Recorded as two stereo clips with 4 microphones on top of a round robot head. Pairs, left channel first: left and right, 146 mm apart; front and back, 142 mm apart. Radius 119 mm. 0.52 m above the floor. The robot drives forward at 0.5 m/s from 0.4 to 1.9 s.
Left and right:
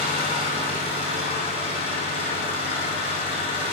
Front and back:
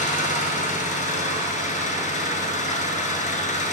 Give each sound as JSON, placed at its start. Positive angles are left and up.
{"t": 0.0, "sound": "an engine running", "azimuth_deg": 30, "distance_m": 10.0}